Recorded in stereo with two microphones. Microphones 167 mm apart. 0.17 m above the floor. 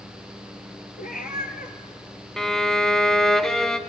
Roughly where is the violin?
Centre.